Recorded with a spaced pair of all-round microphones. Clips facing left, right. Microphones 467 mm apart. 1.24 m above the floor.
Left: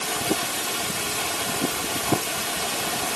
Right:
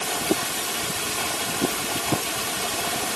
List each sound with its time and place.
Only background noise.